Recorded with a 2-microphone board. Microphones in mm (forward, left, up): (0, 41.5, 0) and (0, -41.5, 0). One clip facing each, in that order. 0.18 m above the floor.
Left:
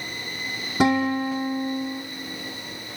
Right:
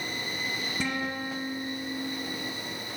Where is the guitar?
85° left, 1.5 m.